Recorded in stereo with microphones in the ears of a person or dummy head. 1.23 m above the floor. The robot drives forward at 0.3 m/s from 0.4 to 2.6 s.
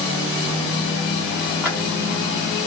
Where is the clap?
5° right (ahead or behind), 1.9 m.